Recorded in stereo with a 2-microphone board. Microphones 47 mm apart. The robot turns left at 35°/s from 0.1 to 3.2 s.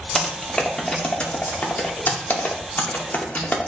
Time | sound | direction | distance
0.1 | typing on a keyboard | 5° left (ahead or behind) | 0.8 m